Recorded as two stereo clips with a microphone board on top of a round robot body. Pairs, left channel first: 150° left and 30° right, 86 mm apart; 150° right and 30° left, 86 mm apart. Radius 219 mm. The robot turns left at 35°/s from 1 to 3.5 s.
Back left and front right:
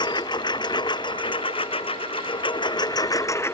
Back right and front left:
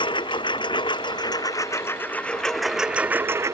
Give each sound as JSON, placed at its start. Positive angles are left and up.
{"t": 0.0, "sound": "a lawn mower", "azimuth_deg": -175}